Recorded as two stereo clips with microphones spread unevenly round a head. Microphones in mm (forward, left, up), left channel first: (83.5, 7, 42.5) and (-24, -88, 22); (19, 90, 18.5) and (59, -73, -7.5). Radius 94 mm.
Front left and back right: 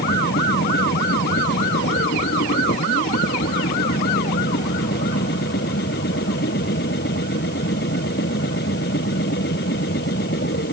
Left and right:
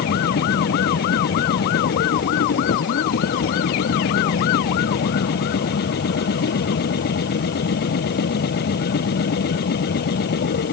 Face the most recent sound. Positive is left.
turn(degrees=80)